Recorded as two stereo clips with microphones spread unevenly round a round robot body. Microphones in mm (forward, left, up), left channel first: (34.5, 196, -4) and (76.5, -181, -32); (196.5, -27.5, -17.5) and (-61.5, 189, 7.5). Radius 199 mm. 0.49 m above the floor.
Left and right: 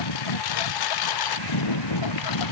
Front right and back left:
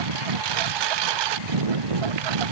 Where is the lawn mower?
135° left; by 2.5 s 145° left.